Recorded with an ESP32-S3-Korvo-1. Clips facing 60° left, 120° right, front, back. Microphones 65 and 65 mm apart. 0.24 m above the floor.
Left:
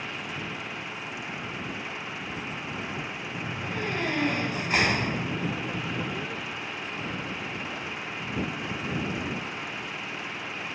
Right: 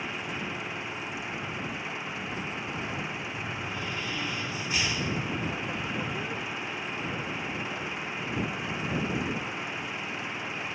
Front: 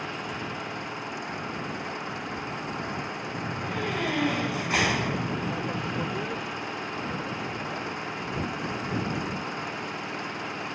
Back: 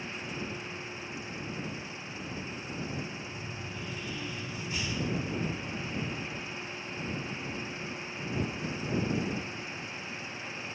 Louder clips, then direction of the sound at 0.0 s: Right 1 dB, front 5 dB; 30° right.